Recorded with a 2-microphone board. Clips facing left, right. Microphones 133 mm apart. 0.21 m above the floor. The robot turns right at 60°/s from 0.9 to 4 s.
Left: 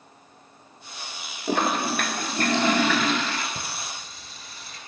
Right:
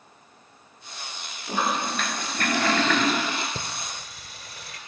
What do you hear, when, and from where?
1.5 s a toilet flushing: 90° left, 0.8 m; by 3.5 s 155° right, 0.8 m
3.5 s singing: 35° right (ahead or behind), 1.0 m; by 4.8 s 60° right (ahead or behind), 1.0 m